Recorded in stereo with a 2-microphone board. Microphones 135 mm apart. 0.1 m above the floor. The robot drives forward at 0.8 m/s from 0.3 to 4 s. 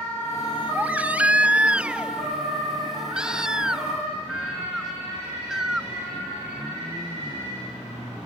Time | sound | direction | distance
0.8 | a baby crying | 10° right (ahead or behind) | ?